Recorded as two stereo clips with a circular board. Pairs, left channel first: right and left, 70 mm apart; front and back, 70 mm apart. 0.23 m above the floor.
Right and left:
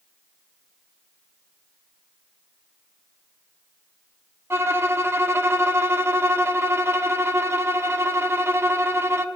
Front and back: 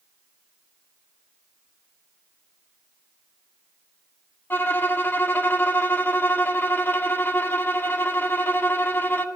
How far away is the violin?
About 0.6 m.